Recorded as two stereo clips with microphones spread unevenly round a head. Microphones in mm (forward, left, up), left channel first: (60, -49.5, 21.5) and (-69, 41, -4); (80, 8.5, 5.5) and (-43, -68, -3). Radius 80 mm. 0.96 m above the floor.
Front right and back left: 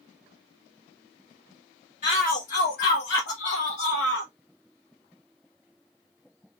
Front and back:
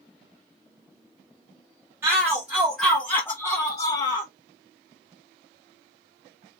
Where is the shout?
75° right, 1.3 m; by 4.3 s 20° right, 1.3 m.